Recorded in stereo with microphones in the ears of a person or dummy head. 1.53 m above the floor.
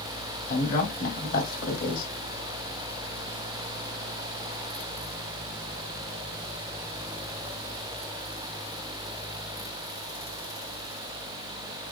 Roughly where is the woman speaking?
Left.